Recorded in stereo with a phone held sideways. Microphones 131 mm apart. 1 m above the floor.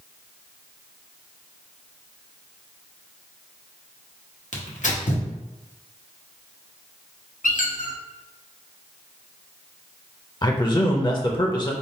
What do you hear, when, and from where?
4.5 s tearing paper: 70° left (ahead or behind), 0.9 m
7.4 s a squeak: 80° left, 0.7 m
10.4 s a man speaking: 35° left (ahead or behind), 0.5 m